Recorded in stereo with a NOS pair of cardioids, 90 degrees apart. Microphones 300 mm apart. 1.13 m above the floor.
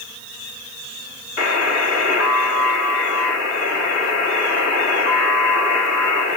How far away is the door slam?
No door slam in this recording.